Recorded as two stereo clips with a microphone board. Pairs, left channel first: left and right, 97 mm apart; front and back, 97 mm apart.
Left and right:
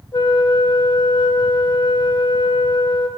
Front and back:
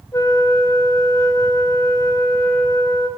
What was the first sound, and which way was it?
A flute, 55° left.